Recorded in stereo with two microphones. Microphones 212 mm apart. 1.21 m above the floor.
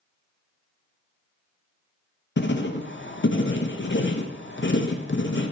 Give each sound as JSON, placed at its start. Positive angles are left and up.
{"t": 2.4, "sound": "writing", "side_deg": 60, "distance_m": 0.7}